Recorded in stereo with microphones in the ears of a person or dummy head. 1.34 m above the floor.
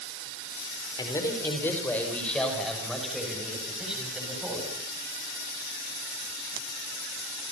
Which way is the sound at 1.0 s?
20° left (ahead or behind).